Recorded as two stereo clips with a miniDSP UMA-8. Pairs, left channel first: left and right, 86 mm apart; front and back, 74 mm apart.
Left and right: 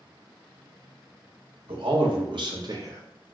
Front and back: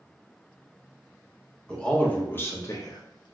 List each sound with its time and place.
1.7 s a man speaking: 80° right, 0.9 m; by 3.4 s 10° right, 0.5 m